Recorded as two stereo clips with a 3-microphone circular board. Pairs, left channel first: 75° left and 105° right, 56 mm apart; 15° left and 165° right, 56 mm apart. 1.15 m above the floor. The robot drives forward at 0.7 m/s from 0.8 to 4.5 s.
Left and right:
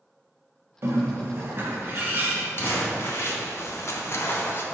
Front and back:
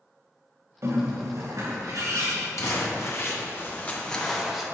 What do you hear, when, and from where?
0.8 s a bird: 140° right, 1.0 m; by 2.5 s 165° right, 2.0 m
2.6 s crumpling: 30° left, 1.4 m; by 4.6 s 110° left, 0.9 m